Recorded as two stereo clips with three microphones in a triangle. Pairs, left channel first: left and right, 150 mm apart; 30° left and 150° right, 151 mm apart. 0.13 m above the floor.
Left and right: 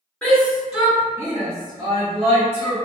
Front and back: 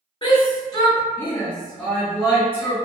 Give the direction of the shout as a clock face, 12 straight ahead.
12 o'clock.